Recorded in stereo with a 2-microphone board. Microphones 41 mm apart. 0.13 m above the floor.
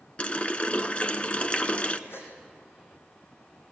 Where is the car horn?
I don't hear a car horn.